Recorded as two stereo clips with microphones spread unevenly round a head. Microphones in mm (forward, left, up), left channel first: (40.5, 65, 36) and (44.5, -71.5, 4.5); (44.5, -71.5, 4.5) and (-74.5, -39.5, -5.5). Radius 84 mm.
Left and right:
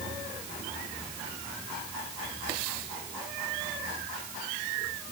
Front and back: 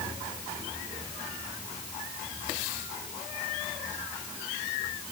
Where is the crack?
I don't hear a crack.